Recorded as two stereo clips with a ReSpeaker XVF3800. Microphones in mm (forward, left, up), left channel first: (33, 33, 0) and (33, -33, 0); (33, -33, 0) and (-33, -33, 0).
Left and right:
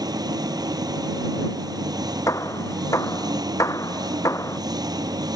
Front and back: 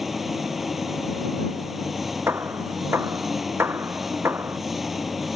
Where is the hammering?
125° left.